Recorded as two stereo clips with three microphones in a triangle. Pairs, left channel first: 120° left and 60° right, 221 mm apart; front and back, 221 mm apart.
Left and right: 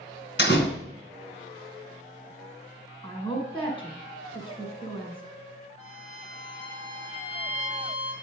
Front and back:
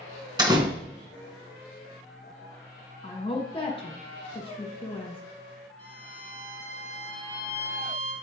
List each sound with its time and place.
0.4 s a door slam: 115° left, 1.8 m
3.0 s a woman speaking: 60° left, 2 m
5.8 s a violin: 175° right, 4.5 m